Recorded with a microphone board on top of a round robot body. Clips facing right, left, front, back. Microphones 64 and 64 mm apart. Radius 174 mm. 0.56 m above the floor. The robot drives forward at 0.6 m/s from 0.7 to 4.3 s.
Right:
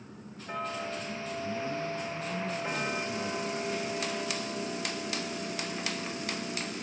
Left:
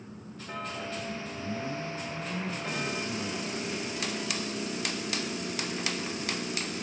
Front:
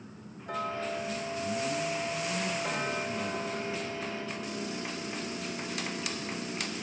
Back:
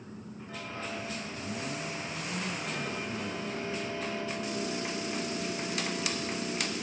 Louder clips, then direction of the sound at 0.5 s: Right 2 dB, front 7 dB; 10° right.